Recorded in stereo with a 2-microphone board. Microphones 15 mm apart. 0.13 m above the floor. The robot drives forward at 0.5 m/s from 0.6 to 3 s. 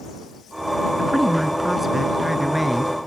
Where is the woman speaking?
10° right (ahead or behind), 1.4 m; by 2.9 s 5° right (ahead or behind), 1.9 m.